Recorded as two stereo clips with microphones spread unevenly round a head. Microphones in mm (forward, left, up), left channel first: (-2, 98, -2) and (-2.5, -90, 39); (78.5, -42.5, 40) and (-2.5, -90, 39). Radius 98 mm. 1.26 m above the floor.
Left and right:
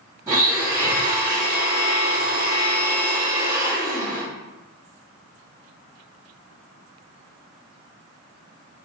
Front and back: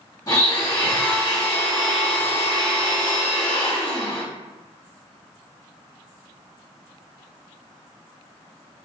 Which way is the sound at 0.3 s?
15° right.